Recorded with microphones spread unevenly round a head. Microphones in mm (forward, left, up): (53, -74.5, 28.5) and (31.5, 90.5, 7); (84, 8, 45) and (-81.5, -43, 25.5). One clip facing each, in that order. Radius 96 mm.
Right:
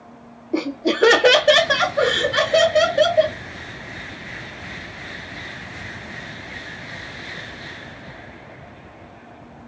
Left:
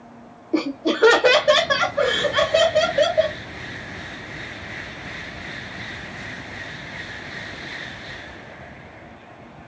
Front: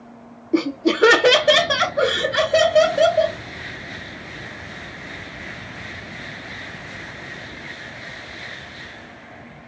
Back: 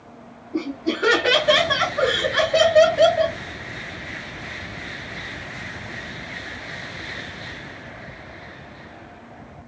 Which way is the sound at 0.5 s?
10° left.